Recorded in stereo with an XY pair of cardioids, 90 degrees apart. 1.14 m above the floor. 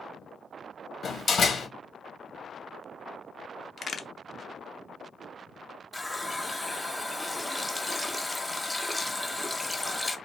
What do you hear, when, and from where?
1.0 s a door slam: 50° left, 0.8 m
3.8 s a crack: 50° left, 0.5 m
5.9 s a running tap: 10° left, 0.6 m